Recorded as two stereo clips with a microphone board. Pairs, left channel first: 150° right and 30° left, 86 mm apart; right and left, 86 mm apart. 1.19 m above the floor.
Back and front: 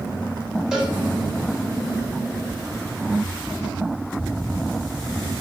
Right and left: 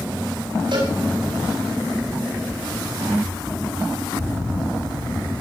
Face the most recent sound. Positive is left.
turn(degrees=110)